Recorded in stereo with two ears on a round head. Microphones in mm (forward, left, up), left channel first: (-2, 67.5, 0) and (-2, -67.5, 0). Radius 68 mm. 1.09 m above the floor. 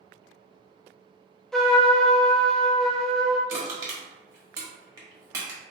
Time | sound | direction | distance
1.5 | a trumpet | centre (ahead or behind) | 0.5 m
3.5 | crushing | 25° right (ahead or behind) | 1.1 m